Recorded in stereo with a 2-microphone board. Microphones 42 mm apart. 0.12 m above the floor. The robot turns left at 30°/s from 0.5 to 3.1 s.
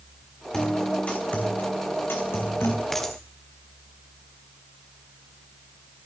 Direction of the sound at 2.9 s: 5° left (ahead or behind).